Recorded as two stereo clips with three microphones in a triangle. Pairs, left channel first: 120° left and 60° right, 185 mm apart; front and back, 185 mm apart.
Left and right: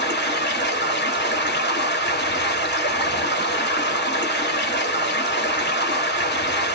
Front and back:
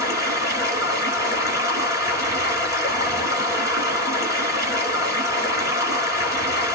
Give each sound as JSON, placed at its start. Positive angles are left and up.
{"t": 0.0, "sound": "running water", "azimuth_deg": 110, "distance_m": 1.3}